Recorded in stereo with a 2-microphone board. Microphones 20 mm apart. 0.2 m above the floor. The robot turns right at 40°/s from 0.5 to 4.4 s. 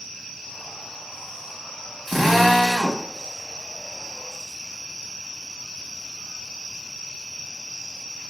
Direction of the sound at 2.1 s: 10° left (ahead or behind).